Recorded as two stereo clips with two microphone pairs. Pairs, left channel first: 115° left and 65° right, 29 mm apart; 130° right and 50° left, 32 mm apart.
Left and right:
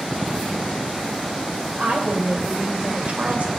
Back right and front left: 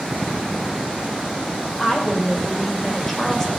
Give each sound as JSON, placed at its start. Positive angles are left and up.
{"t": 1.8, "sound": "a woman speaking", "azimuth_deg": -50, "distance_m": 2.5}